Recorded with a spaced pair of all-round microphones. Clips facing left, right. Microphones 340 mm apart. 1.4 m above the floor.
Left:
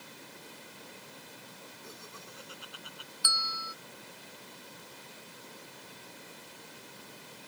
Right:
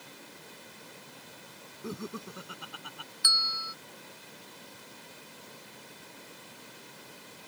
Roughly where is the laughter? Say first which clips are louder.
Right 16 dB; right.